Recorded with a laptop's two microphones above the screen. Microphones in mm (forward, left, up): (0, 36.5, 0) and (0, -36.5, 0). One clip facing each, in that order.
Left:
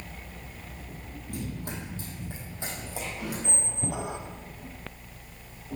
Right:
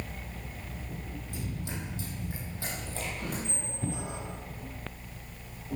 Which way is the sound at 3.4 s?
80° left.